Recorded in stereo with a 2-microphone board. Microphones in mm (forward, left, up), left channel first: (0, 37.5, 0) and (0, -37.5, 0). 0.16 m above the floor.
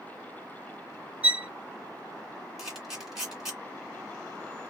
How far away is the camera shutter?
About 1.9 m.